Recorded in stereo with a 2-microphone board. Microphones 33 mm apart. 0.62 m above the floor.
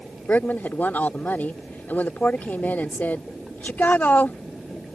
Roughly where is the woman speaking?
Left.